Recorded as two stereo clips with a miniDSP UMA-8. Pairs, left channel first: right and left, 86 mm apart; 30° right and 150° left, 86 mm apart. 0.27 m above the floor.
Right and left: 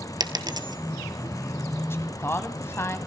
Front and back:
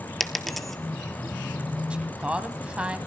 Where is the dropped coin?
60° left, 1.0 m.